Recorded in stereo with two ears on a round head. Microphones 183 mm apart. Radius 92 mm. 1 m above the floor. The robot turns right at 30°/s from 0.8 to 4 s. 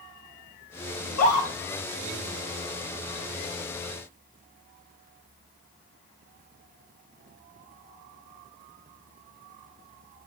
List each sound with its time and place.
1.0 s a scream: 75° left (ahead or behind), 2.5 m; by 1.5 s 85° left, 2.5 m